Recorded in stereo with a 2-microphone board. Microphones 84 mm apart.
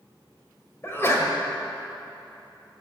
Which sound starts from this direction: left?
A sneeze, at 0.8 s.